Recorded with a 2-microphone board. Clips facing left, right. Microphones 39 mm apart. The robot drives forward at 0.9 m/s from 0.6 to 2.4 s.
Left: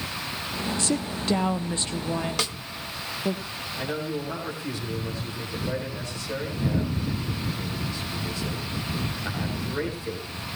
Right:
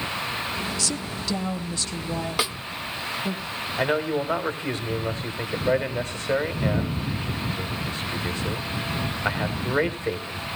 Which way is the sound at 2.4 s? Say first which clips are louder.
Right 3 dB; 10° right (ahead or behind).